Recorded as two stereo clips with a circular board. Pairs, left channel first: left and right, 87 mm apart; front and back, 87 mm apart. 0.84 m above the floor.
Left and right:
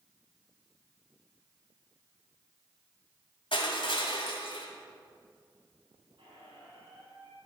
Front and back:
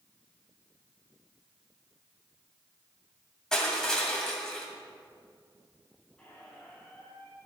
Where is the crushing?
85° left, 1.9 m.